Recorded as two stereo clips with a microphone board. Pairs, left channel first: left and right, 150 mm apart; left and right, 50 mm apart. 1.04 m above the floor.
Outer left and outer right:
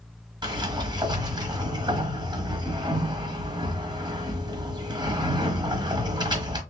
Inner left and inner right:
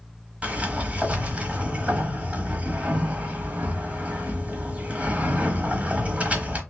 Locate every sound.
0.4 s a sliding door: 30° right (ahead or behind), 0.9 m